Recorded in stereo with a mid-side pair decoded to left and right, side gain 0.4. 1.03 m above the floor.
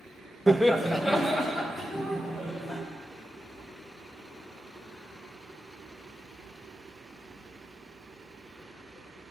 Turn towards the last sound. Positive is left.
turn(degrees=25)